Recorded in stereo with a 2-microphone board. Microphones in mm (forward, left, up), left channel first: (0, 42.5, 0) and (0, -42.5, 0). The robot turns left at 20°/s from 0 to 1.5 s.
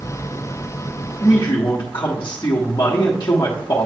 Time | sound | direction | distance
1.2 | a man speaking | 40° left (ahead or behind) | 1.3 m